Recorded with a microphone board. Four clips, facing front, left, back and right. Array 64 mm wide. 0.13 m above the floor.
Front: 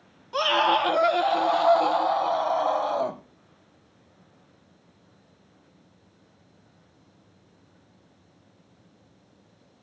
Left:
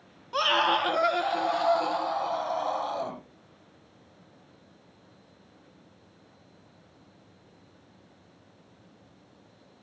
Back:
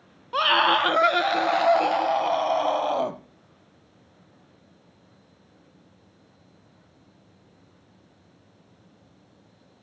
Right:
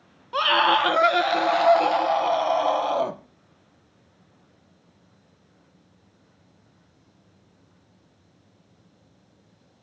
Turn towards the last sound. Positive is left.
turn(degrees=-135)